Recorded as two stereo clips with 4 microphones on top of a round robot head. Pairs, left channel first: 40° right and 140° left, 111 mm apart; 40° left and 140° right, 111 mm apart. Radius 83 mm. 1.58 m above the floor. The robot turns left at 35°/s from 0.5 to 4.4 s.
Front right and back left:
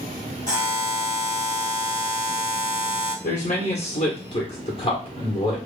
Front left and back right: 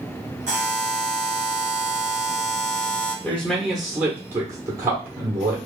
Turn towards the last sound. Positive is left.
turn(degrees=-75)